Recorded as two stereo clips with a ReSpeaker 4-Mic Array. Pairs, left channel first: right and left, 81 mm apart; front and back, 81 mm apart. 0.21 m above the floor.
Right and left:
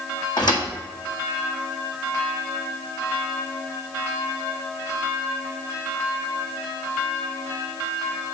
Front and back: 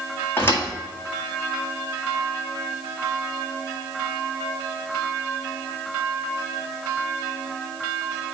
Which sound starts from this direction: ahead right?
A thud, at 0.4 s.